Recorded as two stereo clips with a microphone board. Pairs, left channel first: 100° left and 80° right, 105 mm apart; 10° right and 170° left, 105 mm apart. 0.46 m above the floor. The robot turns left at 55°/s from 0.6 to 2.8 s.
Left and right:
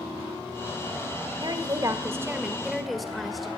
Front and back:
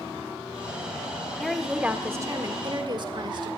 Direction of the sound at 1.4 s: 90° right.